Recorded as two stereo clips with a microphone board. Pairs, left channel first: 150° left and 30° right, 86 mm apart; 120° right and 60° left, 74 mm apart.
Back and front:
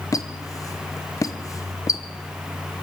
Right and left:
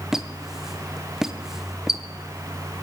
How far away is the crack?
I don't hear a crack.